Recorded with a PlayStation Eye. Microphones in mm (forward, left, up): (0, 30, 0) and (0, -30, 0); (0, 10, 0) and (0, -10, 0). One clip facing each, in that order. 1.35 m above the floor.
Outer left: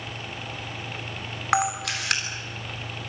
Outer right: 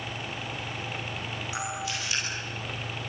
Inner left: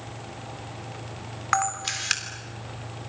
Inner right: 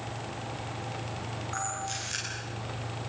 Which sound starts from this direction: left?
A camera shutter, at 1.5 s.